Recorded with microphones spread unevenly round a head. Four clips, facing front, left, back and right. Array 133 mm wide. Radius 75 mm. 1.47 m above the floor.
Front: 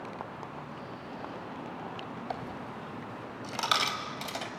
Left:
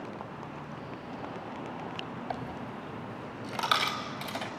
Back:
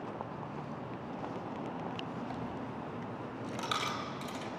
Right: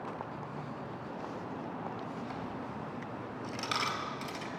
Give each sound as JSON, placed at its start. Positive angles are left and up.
{"t": 2.3, "sound": "a dropped coin", "azimuth_deg": 40, "distance_m": 2.5}